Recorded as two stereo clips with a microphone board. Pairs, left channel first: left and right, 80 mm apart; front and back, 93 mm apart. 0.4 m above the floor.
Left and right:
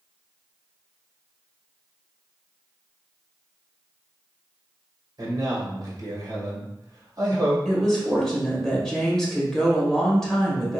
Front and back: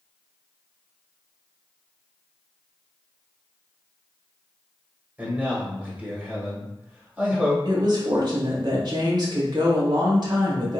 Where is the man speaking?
110° right, 1.4 m.